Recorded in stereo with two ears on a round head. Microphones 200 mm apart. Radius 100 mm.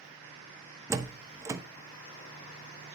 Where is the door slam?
15° right (ahead or behind), 0.9 m.